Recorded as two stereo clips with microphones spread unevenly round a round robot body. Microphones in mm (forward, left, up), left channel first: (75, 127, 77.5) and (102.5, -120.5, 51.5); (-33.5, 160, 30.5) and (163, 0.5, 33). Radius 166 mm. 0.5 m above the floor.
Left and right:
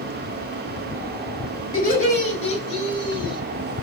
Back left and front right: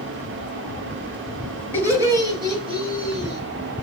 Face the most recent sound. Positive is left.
turn(degrees=25)